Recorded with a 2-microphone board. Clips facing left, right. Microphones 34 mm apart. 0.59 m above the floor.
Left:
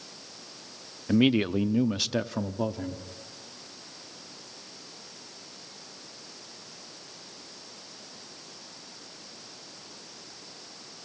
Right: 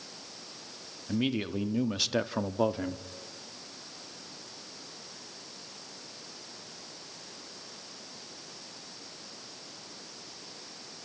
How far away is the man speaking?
About 0.8 m.